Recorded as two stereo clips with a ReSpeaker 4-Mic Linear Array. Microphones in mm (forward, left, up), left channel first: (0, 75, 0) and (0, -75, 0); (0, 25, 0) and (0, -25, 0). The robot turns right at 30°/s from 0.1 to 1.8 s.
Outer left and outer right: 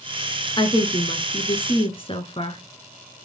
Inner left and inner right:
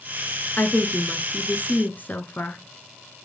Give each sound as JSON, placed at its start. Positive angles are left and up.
{"t": 0.6, "sound": "a woman speaking", "azimuth_deg": 60, "distance_m": 1.3}